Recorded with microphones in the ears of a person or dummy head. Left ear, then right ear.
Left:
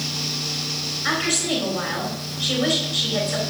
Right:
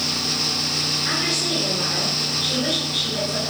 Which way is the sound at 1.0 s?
40° left (ahead or behind).